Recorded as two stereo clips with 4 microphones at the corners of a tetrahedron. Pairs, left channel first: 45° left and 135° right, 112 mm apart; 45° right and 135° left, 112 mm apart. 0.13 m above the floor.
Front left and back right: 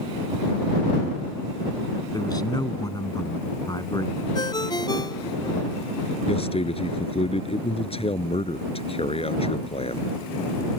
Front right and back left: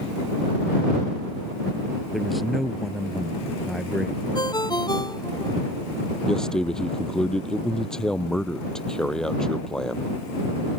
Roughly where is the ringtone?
Ahead.